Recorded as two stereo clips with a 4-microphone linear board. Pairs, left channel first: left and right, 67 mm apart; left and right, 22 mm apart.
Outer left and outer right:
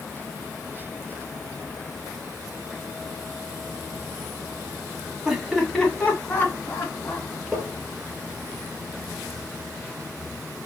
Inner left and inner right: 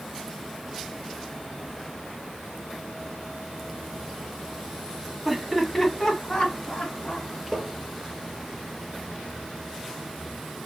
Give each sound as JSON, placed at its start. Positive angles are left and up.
{"t": 5.2, "sound": "laughter", "side_deg": -5, "distance_m": 1.4}
{"t": 7.5, "sound": "tapping", "side_deg": 10, "distance_m": 2.5}